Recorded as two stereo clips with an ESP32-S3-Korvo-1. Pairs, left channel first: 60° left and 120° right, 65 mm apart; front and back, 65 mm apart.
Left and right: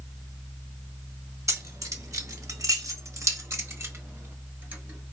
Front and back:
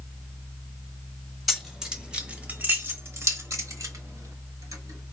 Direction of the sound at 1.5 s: 95° right.